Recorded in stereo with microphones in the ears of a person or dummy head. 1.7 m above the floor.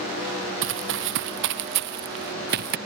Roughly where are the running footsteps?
Right.